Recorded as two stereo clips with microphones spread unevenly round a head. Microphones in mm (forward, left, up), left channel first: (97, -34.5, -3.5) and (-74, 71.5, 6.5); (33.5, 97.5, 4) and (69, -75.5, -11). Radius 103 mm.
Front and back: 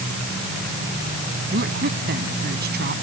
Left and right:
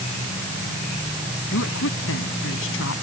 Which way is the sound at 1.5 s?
105° left.